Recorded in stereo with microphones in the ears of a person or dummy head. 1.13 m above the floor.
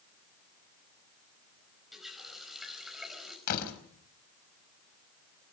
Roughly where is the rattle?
No rattle in this recording.